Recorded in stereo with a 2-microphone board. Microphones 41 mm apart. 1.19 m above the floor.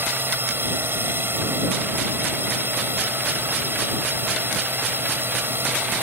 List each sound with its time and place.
0.0 s a drone: 75° right (ahead or behind)